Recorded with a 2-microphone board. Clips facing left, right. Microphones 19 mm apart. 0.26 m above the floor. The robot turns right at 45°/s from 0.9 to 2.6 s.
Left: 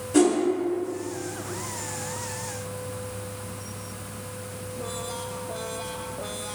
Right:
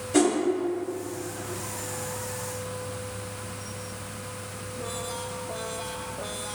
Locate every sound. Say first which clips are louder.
0.1 s a whoosh: left 2 dB; 35° right (ahead or behind), 0.9 m